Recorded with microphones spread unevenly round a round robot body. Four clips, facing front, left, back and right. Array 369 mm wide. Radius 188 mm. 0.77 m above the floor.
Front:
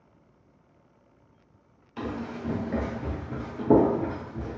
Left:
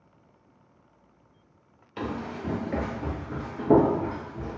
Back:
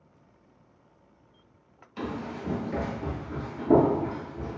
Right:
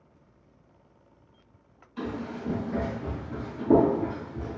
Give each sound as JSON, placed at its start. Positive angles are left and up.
{"t": 2.0, "sound": "running footsteps", "azimuth_deg": 80, "distance_m": 1.2}